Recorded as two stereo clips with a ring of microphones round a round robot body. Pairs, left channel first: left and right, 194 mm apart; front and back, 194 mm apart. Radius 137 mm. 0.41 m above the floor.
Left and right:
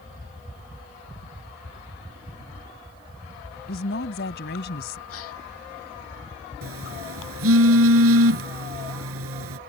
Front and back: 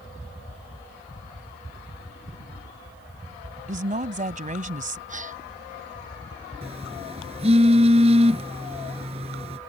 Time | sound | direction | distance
3.7 | a woman speaking | 135° left | ?
5.1 | a gasp | 130° left | ?
6.6 | a phone buzzing | 110° right | ?